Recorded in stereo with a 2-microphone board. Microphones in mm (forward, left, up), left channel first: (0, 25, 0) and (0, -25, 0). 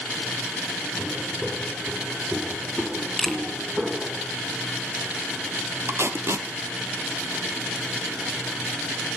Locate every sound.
1.0 s footsteps: 5° right (ahead or behind), 6.5 m; by 4.2 s 10° right (ahead or behind), 5 m
3.2 s a camera shutter: 10° left (ahead or behind), 2 m
5.9 s tape being pulled: 60° right (ahead or behind), 2.5 m